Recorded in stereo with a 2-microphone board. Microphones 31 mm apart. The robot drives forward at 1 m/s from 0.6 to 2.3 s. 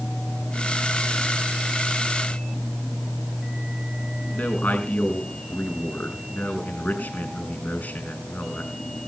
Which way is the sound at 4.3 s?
65° left (ahead or behind).